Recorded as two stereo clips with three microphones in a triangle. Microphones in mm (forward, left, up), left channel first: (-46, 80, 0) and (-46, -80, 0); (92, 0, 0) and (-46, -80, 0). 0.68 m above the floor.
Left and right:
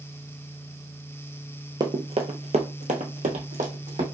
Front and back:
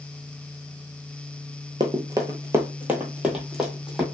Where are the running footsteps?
125° right, 0.7 m; by 4.0 s 60° right, 1.5 m.